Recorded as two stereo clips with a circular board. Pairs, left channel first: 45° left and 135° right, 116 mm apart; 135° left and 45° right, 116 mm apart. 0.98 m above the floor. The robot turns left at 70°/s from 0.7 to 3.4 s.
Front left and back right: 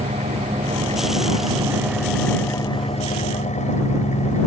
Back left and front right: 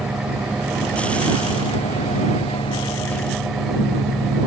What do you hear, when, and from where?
0.0 s an engine running: 130° right; by 4.5 s 45° left